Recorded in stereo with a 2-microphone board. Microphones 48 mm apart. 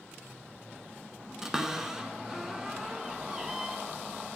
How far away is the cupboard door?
About 0.7 m.